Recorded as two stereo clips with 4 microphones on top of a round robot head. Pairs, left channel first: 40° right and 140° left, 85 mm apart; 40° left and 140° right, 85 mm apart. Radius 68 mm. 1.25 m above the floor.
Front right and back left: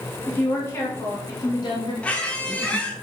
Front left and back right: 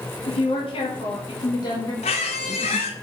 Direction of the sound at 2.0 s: 35° left.